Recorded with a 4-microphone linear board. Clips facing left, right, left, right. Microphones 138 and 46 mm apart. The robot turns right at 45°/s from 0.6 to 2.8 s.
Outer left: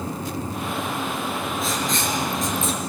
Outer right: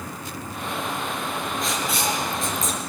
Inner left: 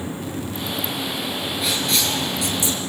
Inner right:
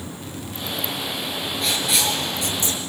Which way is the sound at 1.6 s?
5° left (ahead or behind).